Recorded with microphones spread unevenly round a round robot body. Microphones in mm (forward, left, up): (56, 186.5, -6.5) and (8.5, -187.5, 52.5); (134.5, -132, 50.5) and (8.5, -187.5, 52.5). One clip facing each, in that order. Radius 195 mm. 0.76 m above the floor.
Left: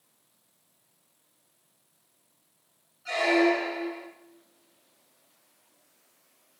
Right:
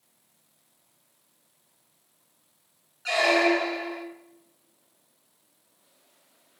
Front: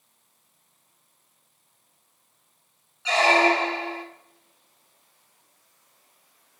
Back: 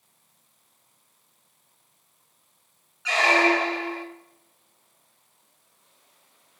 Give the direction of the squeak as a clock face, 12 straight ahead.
1 o'clock.